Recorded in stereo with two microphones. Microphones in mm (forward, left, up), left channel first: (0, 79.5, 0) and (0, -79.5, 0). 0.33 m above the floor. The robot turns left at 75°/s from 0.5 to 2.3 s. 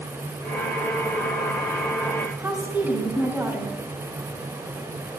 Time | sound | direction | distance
2.4 | a woman speaking | 15° right (ahead or behind) | 2.5 m